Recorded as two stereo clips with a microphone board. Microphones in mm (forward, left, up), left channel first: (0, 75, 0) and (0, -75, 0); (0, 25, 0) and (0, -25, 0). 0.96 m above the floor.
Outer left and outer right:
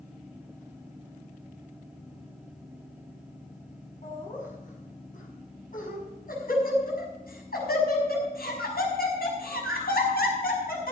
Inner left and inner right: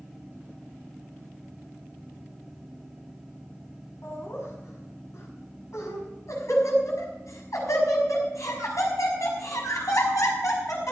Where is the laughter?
55° left (ahead or behind), 7 m; by 10.9 s 75° left (ahead or behind), 6.5 m.